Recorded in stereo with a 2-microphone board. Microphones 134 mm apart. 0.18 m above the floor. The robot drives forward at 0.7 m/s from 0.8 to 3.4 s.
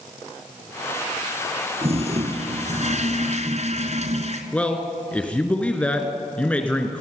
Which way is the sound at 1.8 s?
50° right (ahead or behind).